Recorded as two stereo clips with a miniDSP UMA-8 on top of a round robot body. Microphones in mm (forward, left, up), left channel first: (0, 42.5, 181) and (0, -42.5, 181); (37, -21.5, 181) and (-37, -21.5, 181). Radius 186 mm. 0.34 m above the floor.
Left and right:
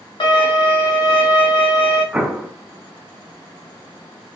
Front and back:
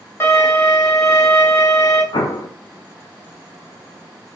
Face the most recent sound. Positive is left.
turn(degrees=-10)